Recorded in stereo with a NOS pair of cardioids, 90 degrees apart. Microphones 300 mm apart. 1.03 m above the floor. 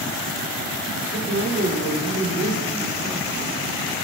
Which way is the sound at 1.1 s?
40° right.